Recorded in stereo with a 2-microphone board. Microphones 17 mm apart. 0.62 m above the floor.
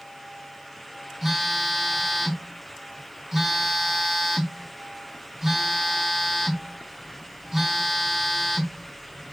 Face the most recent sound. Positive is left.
turn(degrees=-15)  # may be behind; listen again after turning